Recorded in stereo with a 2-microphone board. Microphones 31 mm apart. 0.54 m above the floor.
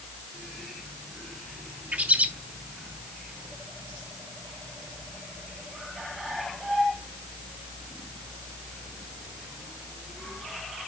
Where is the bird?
55° right (ahead or behind), 1.4 m.